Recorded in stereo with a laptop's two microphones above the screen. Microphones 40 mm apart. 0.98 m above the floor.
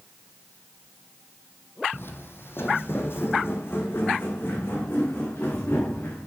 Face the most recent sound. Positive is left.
turn(degrees=60)  # may be behind; listen again after turning